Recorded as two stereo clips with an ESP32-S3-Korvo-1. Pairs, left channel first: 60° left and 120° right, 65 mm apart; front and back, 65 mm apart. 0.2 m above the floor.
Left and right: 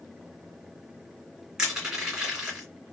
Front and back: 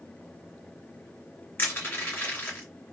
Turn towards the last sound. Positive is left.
turn(degrees=-45)